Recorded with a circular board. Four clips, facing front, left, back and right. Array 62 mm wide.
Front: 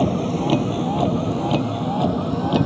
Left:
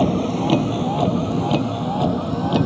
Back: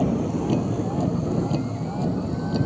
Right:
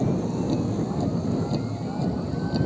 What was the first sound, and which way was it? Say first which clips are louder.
A vehicle: left 6 dB, front 3 dB; 65° left.